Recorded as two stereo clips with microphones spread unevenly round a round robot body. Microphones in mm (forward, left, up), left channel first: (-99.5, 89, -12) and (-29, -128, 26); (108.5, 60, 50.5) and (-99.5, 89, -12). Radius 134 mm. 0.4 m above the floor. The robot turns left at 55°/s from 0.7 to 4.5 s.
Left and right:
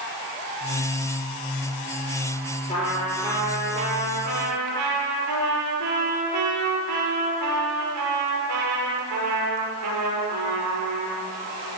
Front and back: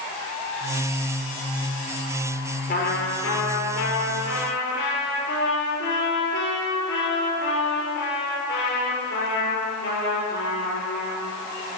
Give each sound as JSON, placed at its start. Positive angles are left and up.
{"t": 2.7, "sound": "a trumpet", "azimuth_deg": 40, "distance_m": 6.0}